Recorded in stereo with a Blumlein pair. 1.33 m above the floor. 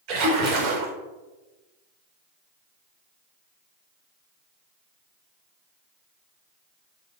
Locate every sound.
0.1 s a splash: 40° right, 1.2 m